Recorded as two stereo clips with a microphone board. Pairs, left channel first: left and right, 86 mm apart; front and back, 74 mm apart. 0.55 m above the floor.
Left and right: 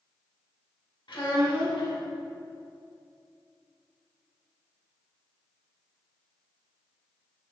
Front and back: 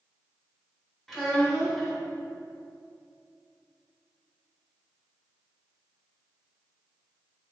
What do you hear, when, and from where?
1.1 s a child speaking: 90° left, 1.2 m